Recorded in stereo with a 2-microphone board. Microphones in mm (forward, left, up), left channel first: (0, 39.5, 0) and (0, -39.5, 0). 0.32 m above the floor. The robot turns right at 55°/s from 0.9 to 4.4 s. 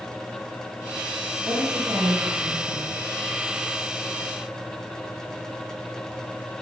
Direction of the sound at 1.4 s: 150° right.